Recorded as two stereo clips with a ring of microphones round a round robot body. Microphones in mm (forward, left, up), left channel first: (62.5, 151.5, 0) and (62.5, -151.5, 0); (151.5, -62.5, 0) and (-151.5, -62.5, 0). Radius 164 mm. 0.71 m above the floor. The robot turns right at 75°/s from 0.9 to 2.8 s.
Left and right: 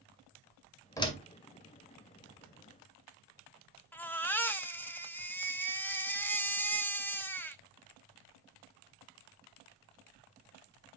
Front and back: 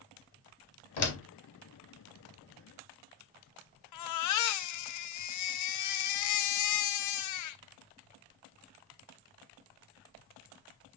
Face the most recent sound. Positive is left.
turn(degrees=10)